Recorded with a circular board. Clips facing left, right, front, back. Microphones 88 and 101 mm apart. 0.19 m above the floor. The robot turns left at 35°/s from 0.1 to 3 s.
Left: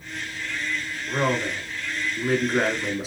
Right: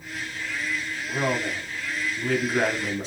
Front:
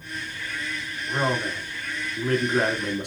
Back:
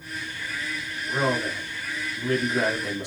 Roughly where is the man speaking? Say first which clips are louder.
Left 2 dB, even; left.